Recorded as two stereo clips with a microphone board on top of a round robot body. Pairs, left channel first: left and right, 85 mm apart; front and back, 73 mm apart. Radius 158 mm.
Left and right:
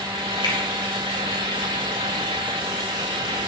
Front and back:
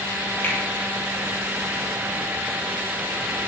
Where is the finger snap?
60° left, 4 m.